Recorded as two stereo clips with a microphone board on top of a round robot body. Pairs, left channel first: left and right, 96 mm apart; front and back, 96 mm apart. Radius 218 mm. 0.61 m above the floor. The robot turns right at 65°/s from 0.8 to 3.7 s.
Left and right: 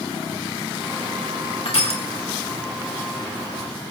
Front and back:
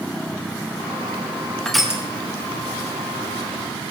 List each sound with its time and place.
1.6 s crushing: 80° left, 3.5 m; by 2.0 s 105° left, 3.5 m